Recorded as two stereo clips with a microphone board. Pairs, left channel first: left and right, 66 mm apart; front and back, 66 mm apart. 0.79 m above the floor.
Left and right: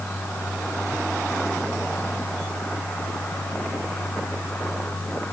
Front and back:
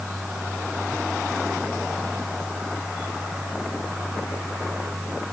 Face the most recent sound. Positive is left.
No sound to turn to.